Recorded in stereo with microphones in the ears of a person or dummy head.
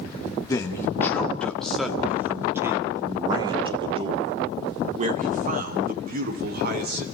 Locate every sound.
0.5 s a man speaking: 20° left (ahead or behind), 2 m; by 7.0 s 50° right (ahead or behind), 3.5 m